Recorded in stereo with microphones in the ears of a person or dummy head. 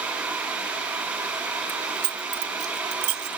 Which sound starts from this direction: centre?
Keys jangling, at 1.7 s.